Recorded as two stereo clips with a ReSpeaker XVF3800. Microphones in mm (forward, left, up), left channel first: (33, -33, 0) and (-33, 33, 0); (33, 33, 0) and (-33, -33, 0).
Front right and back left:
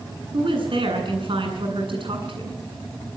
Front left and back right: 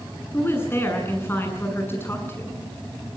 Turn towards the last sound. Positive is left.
turn(degrees=110)